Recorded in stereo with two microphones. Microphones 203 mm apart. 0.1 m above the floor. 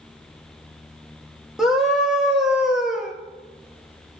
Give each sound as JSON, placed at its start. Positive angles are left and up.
{"t": 1.6, "sound": "a scream", "side_deg": -5, "distance_m": 2.0}